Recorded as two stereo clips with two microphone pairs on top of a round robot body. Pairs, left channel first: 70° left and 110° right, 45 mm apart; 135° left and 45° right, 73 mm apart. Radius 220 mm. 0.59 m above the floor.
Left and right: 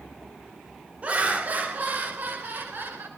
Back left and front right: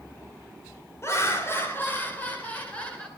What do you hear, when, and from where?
1.0 s laughter: 170° right, 3 m; by 3.1 s 145° right, 3.5 m